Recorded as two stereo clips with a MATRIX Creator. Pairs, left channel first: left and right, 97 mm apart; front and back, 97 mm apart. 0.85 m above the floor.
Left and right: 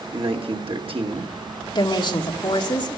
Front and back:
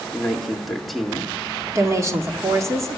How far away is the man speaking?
About 1.9 m.